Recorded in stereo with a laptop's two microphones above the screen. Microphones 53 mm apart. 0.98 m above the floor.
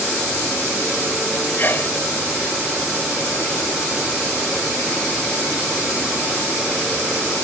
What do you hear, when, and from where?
1.6 s a sneeze: 40° left (ahead or behind)